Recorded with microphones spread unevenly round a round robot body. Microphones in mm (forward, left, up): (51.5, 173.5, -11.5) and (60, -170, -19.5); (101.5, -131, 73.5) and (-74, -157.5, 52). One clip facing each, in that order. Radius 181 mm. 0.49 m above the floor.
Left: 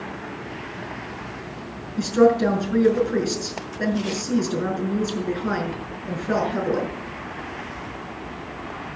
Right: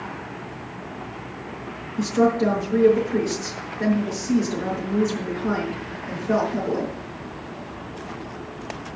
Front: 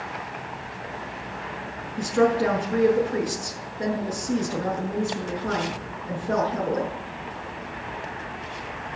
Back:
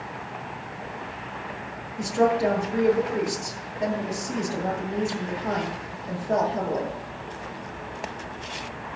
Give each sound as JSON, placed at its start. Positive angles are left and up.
{"t": 2.0, "sound": "a woman speaking", "azimuth_deg": 70, "distance_m": 5.5}